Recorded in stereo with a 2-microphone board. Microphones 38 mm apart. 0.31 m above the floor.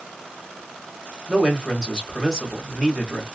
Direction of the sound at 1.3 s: 20° right (ahead or behind).